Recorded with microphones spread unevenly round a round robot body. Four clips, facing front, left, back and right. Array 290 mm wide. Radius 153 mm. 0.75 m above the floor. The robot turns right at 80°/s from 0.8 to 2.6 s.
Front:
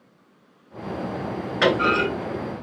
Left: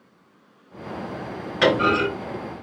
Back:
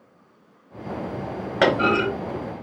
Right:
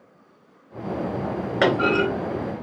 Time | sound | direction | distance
1.6 | a clunk | 145° right | 1.9 m